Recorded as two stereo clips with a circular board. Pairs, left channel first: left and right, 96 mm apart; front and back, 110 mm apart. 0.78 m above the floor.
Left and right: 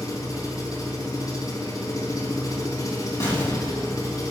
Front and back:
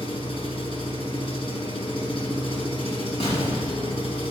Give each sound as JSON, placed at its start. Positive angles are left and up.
{"t": 0.0, "sound": "an engine running", "azimuth_deg": 35, "distance_m": 3.5}
{"t": 3.2, "sound": "an explosion", "azimuth_deg": 25, "distance_m": 6.5}